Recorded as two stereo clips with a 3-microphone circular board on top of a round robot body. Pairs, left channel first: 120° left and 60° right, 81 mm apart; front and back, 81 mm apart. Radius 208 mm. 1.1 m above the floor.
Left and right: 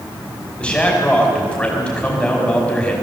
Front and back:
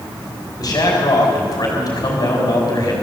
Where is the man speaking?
45° left, 5 m.